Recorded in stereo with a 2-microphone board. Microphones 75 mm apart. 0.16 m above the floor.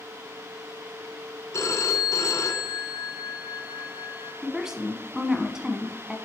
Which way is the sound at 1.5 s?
45° left (ahead or behind).